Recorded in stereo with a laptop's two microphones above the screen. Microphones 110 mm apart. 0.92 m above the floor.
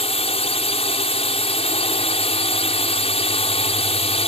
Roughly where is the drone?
Left.